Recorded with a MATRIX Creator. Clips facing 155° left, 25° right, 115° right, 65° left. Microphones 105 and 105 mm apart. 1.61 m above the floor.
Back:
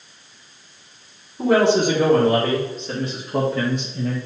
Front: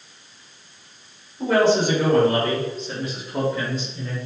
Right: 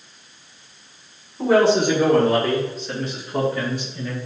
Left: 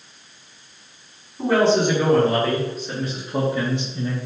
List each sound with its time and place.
1.4 s a man speaking: 160° left, 3.5 m; by 4.2 s 125° left, 1.3 m